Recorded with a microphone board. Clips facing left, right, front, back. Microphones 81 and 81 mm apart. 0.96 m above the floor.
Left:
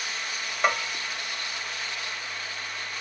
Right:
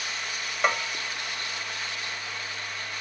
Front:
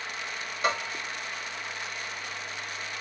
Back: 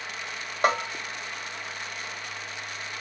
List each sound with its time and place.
0.6 s a bell: straight behind, 1.0 m